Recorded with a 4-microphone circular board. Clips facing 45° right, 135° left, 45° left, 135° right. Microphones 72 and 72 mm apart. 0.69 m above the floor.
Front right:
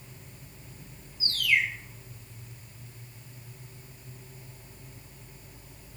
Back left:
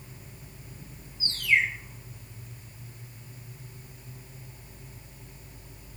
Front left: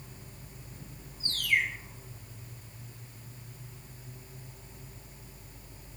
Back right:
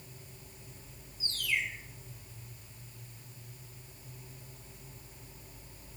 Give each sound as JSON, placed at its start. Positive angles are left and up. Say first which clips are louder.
{"t": 1.2, "sound": "a bird", "louder": "back left 2 dB, front left 5 dB", "azimuth_deg": 75, "distance_m": 0.7}